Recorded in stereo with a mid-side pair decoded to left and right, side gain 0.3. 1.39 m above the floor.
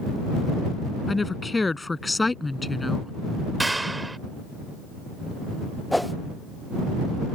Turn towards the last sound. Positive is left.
turn(degrees=5)